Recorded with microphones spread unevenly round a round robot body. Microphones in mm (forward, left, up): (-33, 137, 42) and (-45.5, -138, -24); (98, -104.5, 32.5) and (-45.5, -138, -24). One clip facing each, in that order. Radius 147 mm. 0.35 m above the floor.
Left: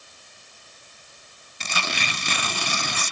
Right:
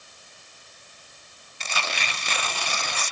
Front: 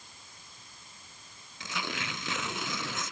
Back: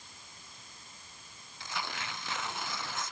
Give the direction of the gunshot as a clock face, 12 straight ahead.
I don't hear a gunshot.